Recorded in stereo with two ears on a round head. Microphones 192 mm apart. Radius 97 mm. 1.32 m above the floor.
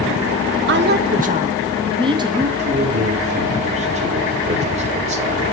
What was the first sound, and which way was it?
A woman speaking, 60° right (ahead or behind).